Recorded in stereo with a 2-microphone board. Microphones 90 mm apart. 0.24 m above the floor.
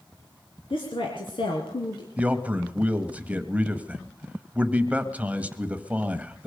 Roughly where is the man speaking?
Centre.